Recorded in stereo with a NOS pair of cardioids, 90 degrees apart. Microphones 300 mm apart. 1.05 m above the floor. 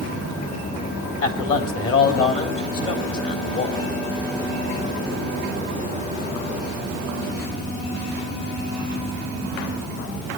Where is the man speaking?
45° left, 3 m.